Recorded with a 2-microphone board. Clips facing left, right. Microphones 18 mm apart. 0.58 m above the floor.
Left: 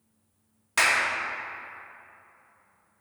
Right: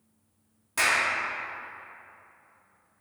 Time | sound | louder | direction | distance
0.8 | a clap | left 2 dB | 35° left (ahead or behind) | 0.9 m